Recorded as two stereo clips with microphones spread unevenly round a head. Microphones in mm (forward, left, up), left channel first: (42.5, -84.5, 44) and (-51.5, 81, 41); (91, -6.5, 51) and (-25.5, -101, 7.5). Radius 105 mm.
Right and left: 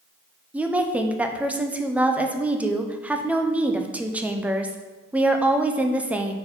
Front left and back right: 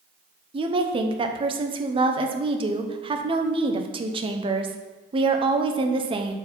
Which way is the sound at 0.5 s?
160° right.